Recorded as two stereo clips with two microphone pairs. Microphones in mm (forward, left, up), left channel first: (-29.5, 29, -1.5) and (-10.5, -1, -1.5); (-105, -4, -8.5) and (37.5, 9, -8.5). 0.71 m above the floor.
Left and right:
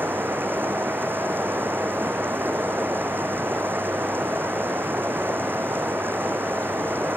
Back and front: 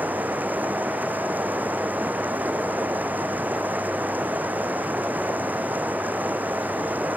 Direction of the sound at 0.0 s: 75° right.